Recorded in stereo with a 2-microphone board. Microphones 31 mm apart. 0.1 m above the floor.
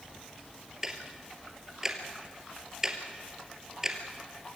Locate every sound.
0.8 s ticking: 15° right (ahead or behind), 2.5 m